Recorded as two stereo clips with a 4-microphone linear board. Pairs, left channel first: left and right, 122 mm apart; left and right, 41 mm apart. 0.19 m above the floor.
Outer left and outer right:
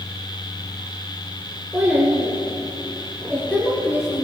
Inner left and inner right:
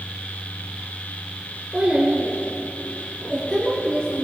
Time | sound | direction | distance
1.7 | a child speaking | 15° right (ahead or behind) | 3 m